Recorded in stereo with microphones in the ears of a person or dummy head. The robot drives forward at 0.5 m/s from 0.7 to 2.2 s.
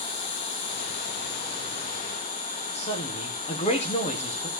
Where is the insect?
60° left (ahead or behind), 1.8 m; by 4.6 s 45° left (ahead or behind), 2 m.